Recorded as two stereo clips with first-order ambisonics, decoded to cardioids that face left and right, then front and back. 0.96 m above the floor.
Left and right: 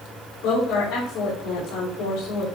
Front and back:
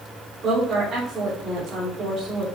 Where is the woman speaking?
120° left, 4.5 m.